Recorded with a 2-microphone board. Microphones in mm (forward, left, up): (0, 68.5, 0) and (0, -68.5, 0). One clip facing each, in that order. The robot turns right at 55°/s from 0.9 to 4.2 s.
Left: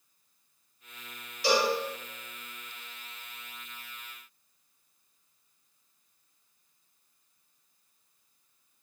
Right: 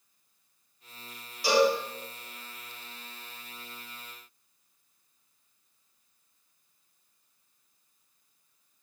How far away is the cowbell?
About 1.7 m.